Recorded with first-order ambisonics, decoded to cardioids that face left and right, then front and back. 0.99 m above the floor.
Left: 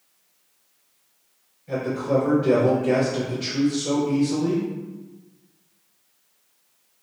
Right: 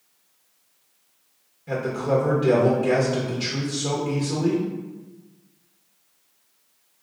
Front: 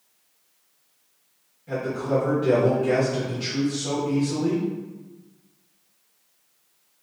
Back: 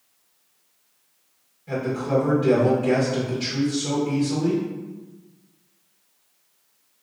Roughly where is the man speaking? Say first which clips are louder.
Even, back 1 dB; right.